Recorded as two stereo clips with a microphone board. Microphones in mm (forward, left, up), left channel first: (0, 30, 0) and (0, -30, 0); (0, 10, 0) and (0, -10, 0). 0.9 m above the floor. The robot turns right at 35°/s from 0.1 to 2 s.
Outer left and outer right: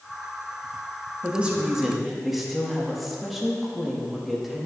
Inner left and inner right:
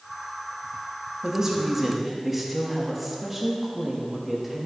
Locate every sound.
1.2 s a woman speaking: 25° right (ahead or behind), 1.3 m; by 4.7 s centre (ahead or behind), 1.3 m